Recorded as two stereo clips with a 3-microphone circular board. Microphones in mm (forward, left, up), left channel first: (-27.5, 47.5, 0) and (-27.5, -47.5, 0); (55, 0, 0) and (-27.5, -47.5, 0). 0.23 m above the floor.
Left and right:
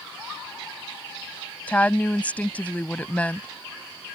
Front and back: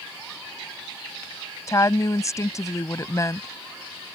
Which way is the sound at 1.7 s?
30° left.